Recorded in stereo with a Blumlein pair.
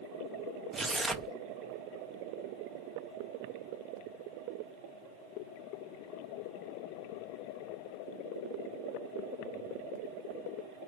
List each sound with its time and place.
0.7 s tearing paper: 10° right, 0.7 m